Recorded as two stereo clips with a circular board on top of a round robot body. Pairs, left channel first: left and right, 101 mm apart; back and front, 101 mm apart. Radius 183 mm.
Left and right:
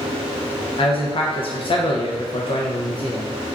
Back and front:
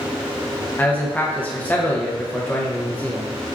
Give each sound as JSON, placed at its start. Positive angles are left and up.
{"t": 0.8, "sound": "a man speaking", "azimuth_deg": 105, "distance_m": 0.7}